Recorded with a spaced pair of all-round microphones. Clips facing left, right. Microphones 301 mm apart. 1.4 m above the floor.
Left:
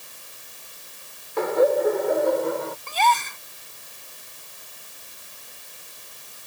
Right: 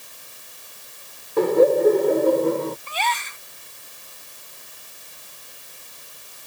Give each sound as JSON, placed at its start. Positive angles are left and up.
{"t": 1.4, "sound": "laughter", "side_deg": -40}
{"t": 2.9, "sound": "a gasp", "side_deg": 55}